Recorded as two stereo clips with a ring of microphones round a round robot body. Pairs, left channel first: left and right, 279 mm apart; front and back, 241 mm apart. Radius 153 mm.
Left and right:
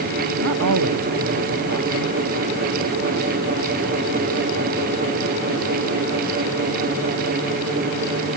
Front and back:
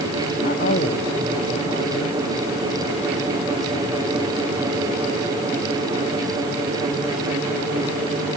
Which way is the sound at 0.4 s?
60° right.